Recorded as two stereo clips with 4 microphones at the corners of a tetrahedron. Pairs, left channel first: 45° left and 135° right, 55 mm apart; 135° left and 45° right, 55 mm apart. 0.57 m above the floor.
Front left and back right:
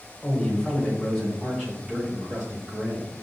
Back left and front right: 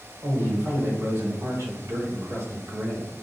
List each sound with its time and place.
0.2 s a man speaking: 30° right, 1.9 m; by 3.1 s 60° right, 4.5 m